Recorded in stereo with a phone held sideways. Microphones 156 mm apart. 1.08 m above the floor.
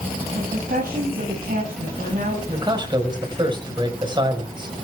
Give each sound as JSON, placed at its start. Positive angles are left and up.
{"t": 0.3, "sound": "a woman speaking", "side_deg": -70, "distance_m": 8.0}
{"t": 2.5, "sound": "a man speaking", "side_deg": -30, "distance_m": 5.5}